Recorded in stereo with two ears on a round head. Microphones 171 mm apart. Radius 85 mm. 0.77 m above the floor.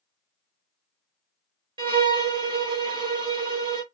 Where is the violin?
25° right (ahead or behind), 0.6 m.